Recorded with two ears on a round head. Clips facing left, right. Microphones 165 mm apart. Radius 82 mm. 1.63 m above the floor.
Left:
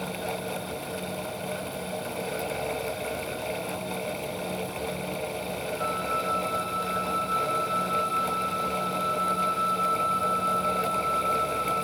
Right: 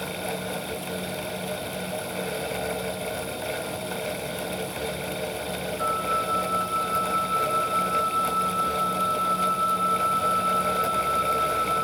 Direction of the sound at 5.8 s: 20° left (ahead or behind).